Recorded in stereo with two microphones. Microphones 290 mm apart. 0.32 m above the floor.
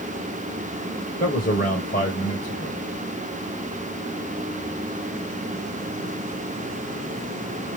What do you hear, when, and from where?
1.2 s a man speaking: 30° left (ahead or behind), 1.2 m